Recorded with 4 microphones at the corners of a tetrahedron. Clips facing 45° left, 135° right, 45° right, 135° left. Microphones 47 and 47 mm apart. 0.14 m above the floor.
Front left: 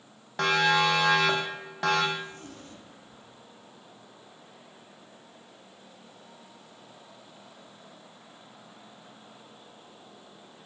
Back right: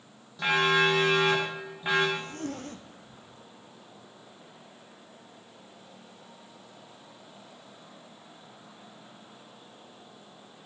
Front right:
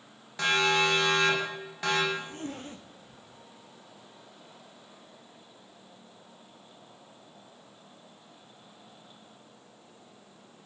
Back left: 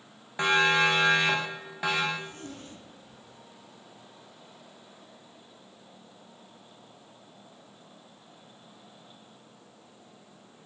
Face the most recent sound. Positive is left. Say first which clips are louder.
# back right 4 dB, front right 2 dB
turn(degrees=-100)